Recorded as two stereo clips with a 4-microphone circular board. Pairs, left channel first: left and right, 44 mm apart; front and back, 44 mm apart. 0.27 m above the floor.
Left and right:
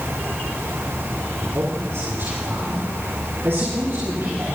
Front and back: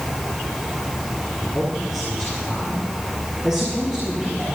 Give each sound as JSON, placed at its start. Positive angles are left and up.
{"t": 1.4, "sound": "a man speaking", "azimuth_deg": -90, "distance_m": 5.5}